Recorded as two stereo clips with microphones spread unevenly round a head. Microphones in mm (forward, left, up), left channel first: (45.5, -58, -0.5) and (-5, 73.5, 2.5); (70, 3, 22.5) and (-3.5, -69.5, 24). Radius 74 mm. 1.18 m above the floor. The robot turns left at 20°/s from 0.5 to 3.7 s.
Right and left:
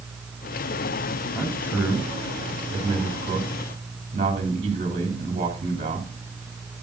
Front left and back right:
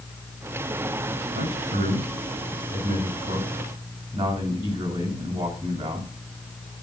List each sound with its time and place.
1.3 s a man speaking: 145° right, 3.5 m; by 6.1 s 170° left, 3.5 m